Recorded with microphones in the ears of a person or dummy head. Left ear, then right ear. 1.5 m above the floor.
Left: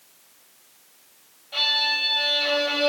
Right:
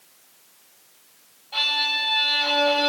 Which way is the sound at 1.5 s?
5° left (ahead or behind).